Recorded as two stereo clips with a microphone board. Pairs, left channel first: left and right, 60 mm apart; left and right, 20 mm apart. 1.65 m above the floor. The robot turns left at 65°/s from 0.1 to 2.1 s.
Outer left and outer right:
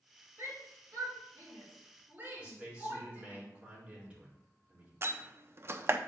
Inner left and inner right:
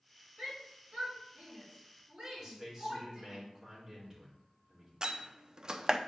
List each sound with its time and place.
0.4 s a shout: 45° right (ahead or behind), 4.5 m; by 3.4 s 25° right (ahead or behind), 4.5 m
2.4 s a man speaking: 15° right (ahead or behind), 4 m
5.0 s a door slam: 40° right (ahead or behind), 0.6 m